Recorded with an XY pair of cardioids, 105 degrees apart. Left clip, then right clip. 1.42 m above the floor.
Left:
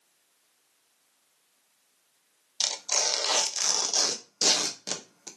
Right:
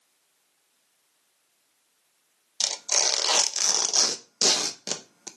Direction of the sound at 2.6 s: 30° right.